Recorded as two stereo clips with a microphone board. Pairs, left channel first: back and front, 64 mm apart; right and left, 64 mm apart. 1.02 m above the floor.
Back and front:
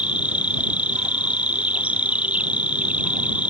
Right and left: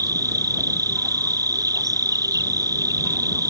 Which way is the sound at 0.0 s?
65° left.